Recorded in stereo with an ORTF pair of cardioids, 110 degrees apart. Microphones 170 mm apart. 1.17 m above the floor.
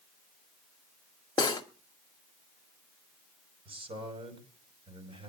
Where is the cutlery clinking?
25° left, 1.6 m.